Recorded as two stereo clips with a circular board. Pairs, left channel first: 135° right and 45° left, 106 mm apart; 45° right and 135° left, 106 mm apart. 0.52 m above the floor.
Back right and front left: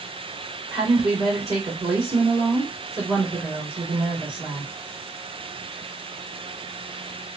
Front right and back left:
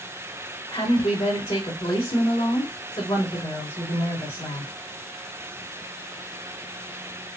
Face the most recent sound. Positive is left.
turn(degrees=-15)